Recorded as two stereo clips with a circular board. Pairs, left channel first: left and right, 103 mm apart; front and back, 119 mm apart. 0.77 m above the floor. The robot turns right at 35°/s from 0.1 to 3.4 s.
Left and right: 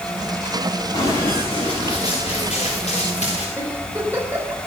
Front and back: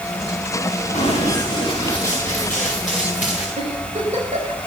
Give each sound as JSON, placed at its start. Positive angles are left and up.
{"t": 0.9, "sound": "running footsteps", "azimuth_deg": 40, "distance_m": 7.0}
{"t": 3.6, "sound": "a giggle", "azimuth_deg": -160, "distance_m": 5.0}